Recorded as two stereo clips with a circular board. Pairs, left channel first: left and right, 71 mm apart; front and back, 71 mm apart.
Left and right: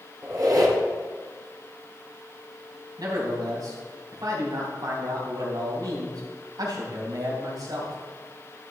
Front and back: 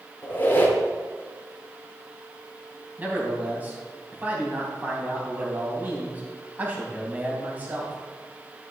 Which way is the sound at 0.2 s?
60° right.